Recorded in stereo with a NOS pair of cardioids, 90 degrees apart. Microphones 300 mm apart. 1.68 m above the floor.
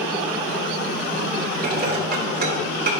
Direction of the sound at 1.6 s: 30° right.